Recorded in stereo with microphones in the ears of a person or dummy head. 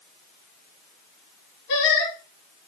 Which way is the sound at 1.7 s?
65° left (ahead or behind).